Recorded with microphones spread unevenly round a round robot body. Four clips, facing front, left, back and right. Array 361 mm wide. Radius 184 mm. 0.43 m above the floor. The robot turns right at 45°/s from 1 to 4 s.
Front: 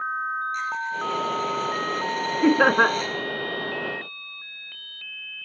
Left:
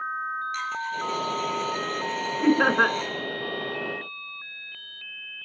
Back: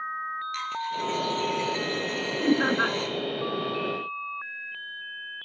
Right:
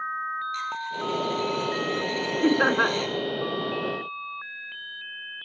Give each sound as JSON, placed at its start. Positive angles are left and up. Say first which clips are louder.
{"t": 0.5, "sound": "a dropped coin", "louder": "left 1 dB, front 2 dB", "azimuth_deg": 180, "distance_m": 4.0}
{"t": 2.4, "sound": "laughter", "louder": "left 1 dB, front 6 dB", "azimuth_deg": 0, "distance_m": 2.5}